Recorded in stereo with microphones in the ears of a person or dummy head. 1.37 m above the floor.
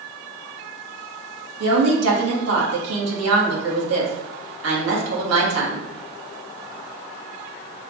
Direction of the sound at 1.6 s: 80° right.